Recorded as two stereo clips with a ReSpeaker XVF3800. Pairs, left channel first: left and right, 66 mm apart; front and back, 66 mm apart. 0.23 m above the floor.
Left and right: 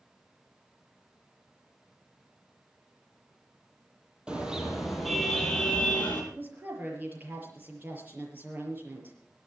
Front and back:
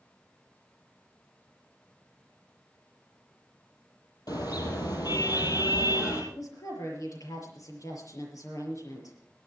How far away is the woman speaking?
About 6 m.